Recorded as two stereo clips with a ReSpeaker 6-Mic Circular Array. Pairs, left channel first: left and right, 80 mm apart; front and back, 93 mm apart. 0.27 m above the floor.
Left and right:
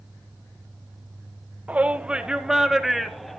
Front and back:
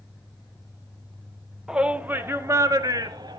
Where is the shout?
110° right, 0.9 m; by 3.4 s 175° left, 1.3 m.